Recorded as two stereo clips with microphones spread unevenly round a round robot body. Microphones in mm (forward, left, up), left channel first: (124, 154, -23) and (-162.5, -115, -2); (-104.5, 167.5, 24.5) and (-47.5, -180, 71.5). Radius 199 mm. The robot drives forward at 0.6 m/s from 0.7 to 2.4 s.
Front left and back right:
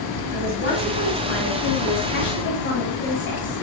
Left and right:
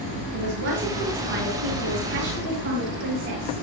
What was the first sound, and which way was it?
A man speaking, 15° right.